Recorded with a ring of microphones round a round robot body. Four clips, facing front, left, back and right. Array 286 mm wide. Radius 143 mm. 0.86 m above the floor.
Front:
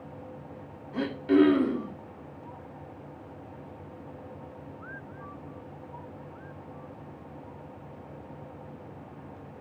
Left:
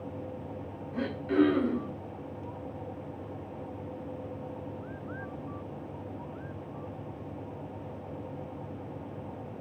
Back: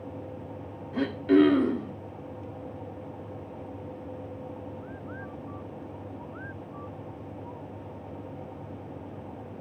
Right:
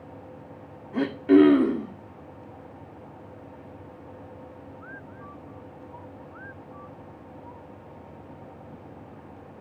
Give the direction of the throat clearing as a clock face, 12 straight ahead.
3 o'clock.